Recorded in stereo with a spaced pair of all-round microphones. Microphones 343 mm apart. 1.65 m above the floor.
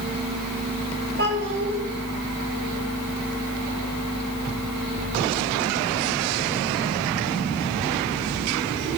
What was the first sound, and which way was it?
A child speaking, 35° right (ahead or behind).